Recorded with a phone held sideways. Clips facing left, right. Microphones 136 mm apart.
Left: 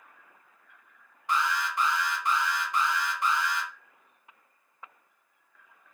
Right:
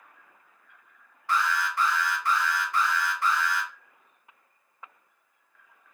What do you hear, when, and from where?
1.3 s an alarm: 20° left (ahead or behind), 0.9 m